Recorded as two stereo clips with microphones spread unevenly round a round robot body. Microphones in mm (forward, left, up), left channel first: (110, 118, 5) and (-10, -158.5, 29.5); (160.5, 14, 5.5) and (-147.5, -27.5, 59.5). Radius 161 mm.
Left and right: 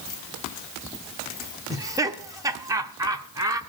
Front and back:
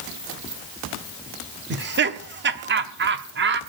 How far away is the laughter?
About 0.9 m.